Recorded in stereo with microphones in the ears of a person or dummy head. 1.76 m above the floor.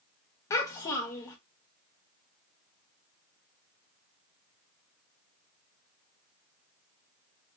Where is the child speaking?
15° left (ahead or behind), 0.8 m.